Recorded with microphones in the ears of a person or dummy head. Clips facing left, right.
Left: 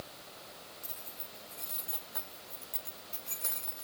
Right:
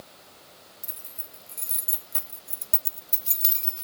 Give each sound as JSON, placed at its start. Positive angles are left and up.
{"t": 0.8, "sound": "keys jangling", "side_deg": -30, "distance_m": 2.0}